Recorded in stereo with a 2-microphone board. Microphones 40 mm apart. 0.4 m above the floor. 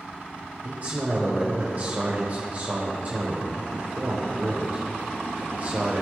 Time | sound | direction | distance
0.6 | a man speaking | 40° right (ahead or behind) | 1.4 m